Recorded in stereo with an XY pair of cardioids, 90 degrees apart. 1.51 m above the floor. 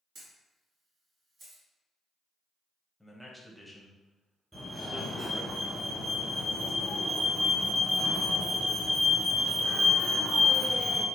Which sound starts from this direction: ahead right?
A camera shutter, at 0.1 s.